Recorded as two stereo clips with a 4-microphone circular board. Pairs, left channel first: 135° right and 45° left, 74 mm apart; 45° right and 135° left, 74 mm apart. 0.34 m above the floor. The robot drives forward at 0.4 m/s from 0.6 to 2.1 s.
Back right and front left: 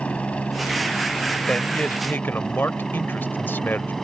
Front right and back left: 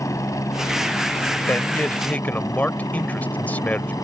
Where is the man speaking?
75° right; by 3.9 s 95° right.